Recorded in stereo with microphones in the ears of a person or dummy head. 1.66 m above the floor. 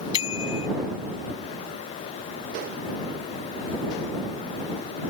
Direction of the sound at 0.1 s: 30° left (ahead or behind).